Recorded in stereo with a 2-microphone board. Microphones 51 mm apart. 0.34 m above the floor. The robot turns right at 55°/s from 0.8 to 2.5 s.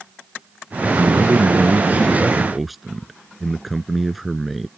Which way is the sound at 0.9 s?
90° right.